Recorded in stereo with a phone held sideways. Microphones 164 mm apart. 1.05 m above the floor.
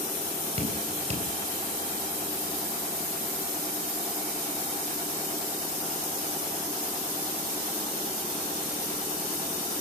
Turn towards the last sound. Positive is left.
turn(degrees=-40)  # may be behind; listen again after turning